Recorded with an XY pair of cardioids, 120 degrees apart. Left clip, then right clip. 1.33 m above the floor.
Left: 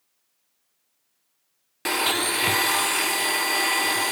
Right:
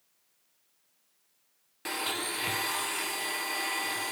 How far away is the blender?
About 0.7 m.